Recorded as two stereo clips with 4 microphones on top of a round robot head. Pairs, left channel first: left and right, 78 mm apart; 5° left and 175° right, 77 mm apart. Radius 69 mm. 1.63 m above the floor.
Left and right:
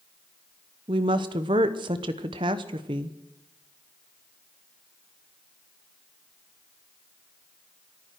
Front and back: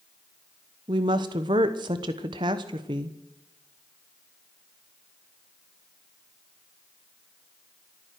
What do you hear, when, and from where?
0.9 s a woman speaking: 135° right, 0.9 m